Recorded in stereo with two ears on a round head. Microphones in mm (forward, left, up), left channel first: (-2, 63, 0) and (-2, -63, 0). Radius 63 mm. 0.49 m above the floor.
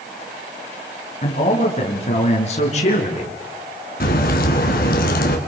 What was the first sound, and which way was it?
A man speaking, 50° left (ahead or behind).